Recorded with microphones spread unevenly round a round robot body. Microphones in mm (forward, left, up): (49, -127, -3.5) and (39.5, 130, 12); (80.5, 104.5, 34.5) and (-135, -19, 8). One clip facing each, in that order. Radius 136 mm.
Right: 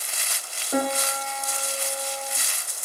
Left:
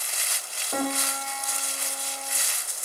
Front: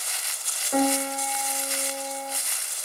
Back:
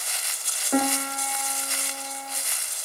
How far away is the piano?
About 0.5 m.